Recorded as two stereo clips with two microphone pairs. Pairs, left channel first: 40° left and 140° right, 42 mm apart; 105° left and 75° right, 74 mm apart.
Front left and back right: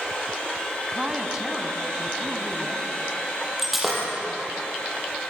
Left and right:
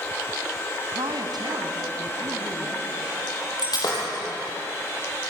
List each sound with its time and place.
0.9 s a woman speaking: 65° right, 3.5 m
3.6 s breaking glass: 130° left, 8 m